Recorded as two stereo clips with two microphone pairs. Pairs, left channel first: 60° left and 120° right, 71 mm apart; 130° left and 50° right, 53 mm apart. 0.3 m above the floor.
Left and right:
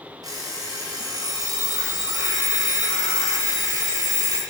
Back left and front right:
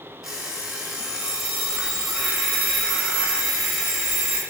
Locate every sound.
0.2 s an alarm clock: 135° right, 1.3 m